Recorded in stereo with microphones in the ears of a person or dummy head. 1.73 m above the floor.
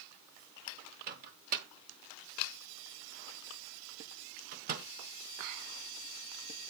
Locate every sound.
1.1 s a microwave: 45° right (ahead or behind), 0.9 m